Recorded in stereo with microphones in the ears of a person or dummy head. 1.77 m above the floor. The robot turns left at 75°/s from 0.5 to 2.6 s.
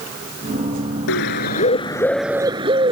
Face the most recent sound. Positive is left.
turn(degrees=-30)